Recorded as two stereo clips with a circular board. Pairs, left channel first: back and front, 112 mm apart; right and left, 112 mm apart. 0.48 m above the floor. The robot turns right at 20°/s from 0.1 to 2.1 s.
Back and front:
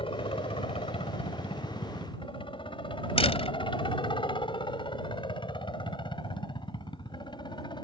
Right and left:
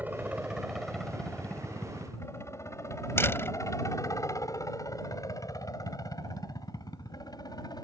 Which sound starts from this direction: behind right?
A door slam, at 3.2 s.